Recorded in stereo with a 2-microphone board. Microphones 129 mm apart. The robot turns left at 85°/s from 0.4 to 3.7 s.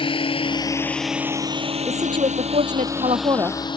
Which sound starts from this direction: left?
A drone, at 0.0 s.